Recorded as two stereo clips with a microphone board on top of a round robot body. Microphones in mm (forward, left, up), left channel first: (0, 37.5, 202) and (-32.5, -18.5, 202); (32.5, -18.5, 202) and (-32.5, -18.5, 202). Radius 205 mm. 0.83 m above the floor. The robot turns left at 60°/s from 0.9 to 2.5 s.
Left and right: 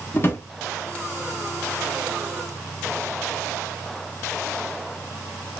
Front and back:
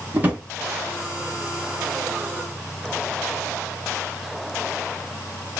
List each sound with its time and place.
0.1 s a drawer: 115° left, 0.6 m